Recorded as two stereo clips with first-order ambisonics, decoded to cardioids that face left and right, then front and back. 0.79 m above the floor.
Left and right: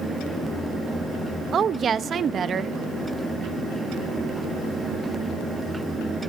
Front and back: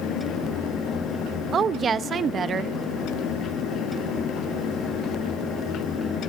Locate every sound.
1.5 s a woman speaking: 135° right, 0.6 m